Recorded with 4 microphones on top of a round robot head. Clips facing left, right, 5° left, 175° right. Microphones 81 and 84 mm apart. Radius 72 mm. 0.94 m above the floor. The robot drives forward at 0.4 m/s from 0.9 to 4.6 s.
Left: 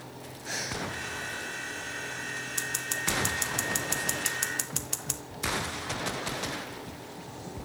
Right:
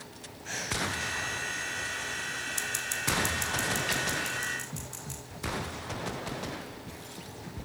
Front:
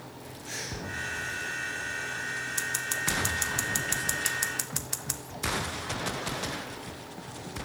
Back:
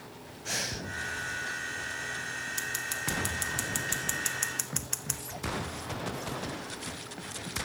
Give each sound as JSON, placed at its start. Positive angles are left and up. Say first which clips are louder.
{"t": 0.5, "sound": "breathing", "louder": "right 1 dB, back 2 dB", "azimuth_deg": 170, "distance_m": 1.6}
{"t": 2.6, "sound": "scissors", "louder": "left 1 dB, front 3 dB", "azimuth_deg": 55, "distance_m": 1.6}